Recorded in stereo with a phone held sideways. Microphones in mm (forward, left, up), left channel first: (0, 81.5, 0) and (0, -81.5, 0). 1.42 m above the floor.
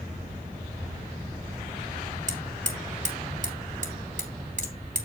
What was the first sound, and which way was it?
Hammering, 50° right (ahead or behind).